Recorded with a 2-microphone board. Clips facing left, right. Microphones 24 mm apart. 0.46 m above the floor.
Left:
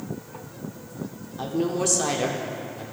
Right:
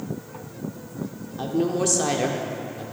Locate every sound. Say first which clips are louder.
1.4 s a woman speaking: right 2 dB; 5° right (ahead or behind), 0.7 m